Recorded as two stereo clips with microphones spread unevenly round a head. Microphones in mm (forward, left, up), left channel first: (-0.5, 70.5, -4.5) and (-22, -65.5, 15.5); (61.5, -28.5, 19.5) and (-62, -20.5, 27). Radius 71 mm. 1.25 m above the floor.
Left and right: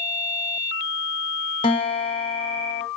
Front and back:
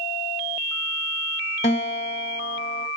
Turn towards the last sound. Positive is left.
turn(degrees=30)